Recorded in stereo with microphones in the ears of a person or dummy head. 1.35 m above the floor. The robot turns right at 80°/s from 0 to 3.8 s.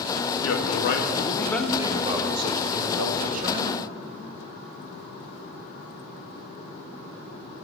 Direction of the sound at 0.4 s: 80° left.